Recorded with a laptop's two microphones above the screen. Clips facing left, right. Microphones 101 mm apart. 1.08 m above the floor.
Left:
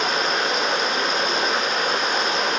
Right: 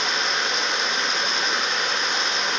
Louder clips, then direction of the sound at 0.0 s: Left 4 dB; 45° left (ahead or behind).